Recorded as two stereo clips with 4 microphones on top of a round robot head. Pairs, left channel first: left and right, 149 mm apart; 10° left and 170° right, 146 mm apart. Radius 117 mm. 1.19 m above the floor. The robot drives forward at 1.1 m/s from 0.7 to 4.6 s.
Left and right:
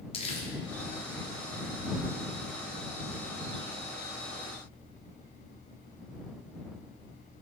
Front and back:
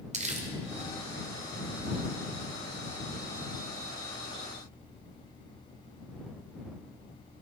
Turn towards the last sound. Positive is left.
turn(degrees=170)